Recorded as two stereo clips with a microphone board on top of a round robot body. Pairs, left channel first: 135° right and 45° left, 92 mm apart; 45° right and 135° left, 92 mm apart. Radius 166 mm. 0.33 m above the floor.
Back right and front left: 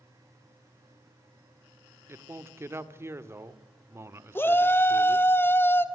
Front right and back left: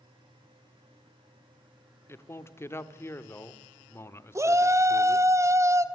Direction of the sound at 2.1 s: Straight ahead.